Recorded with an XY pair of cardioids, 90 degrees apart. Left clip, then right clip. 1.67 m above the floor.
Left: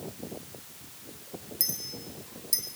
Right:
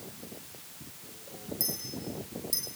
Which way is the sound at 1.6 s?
35° left.